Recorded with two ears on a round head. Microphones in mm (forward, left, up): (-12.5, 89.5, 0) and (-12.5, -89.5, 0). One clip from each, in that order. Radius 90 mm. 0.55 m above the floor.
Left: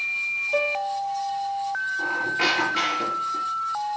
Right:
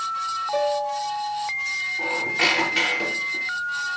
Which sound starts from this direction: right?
A squeak, at 2.0 s.